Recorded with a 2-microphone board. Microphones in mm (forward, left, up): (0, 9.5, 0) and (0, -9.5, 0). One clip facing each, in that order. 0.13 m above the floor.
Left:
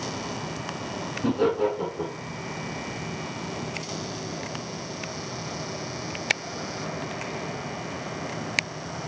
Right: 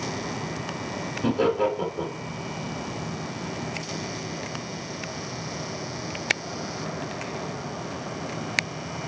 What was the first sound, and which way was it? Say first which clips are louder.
Laughter: right 1 dB; 20° right (ahead or behind).